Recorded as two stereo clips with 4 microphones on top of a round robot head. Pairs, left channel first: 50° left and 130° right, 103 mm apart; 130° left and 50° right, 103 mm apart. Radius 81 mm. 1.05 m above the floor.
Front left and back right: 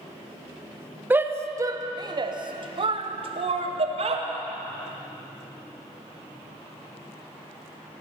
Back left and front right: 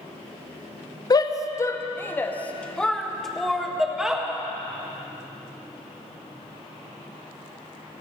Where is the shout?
165° left, 1.0 m; by 4.3 s 130° right, 1.9 m.